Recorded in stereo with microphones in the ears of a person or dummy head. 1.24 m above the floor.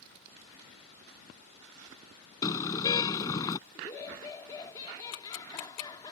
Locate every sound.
2.4 s a car horn: 25° left (ahead or behind)
3.8 s laughter: 25° left (ahead or behind)
5.1 s ticking: 70° left (ahead or behind)